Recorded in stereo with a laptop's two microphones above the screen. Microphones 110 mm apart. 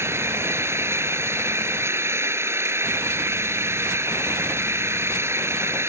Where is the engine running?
25° right (ahead or behind).